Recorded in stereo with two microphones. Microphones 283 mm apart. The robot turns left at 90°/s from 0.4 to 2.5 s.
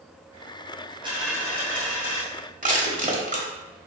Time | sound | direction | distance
1.0 | a dropped coin | 165° right | 2 m
2.6 | crushing | 30° right (ahead or behind) | 1.1 m